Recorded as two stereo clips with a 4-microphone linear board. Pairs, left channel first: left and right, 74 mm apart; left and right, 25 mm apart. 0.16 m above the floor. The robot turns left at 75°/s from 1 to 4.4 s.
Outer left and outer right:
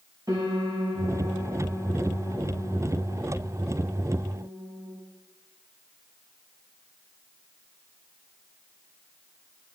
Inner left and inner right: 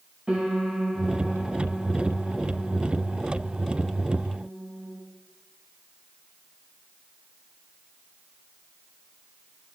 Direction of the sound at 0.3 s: 125° right.